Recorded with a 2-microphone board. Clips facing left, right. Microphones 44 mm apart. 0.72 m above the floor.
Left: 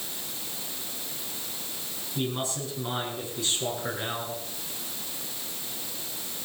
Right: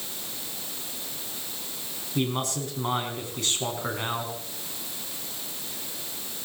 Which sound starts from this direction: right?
A man speaking, at 2.1 s.